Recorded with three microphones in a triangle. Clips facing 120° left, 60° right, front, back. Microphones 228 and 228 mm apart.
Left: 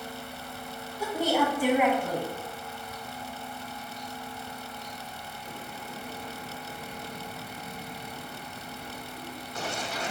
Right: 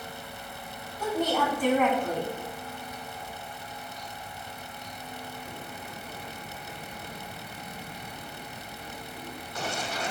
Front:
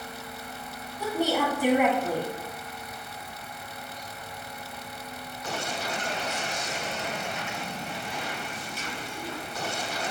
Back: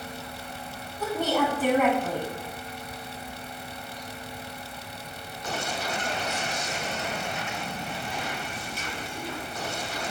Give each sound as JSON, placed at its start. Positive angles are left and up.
{"t": 1.0, "sound": "a woman speaking", "azimuth_deg": 55, "distance_m": 1.3}